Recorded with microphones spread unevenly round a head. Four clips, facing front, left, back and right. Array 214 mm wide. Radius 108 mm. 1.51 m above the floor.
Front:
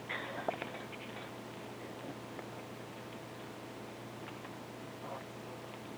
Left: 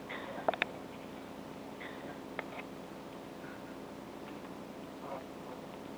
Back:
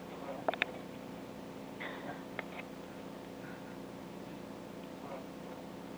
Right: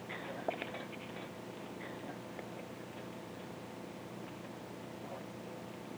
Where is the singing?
No singing in this recording.